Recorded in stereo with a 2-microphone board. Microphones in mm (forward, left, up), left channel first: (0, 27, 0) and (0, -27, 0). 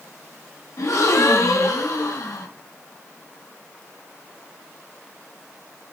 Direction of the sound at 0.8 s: 70° left (ahead or behind).